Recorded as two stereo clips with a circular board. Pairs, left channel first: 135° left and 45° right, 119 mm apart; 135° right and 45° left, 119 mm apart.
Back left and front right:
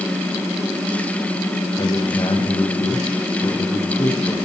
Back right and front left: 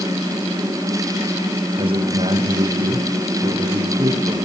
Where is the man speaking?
85° left, 7 m.